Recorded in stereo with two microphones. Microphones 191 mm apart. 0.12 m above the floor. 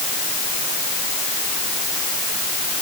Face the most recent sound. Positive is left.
No sound to turn to.